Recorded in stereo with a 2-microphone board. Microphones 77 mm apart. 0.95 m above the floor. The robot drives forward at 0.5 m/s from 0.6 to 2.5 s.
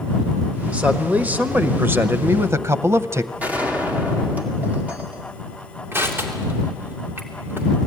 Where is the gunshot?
20° right (ahead or behind), 2 m.